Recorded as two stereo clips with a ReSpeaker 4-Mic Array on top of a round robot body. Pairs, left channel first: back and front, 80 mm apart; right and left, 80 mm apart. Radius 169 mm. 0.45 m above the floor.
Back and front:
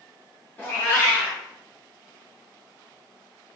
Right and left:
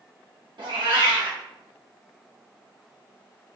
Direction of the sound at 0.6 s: 115° left.